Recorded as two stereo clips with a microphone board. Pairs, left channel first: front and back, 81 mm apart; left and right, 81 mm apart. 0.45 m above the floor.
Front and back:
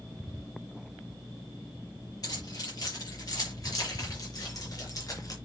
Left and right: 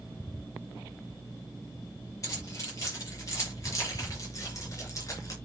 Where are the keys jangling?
40° left, 7 m.